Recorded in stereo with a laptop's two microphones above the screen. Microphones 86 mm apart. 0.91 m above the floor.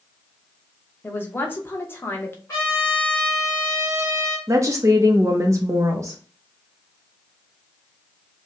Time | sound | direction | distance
1.0 | a man speaking | 25° left (ahead or behind) | 0.8 m
2.5 | a trumpet | 35° left (ahead or behind) | 2.5 m
4.5 | a woman speaking | 35° right (ahead or behind) | 0.7 m